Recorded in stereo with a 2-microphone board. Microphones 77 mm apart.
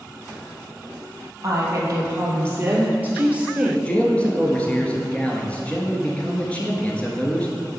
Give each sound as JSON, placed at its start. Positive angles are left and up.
{"t": 1.4, "sound": "a woman speaking", "side_deg": -40, "distance_m": 2.5}
{"t": 3.9, "sound": "a man speaking", "side_deg": 15, "distance_m": 1.2}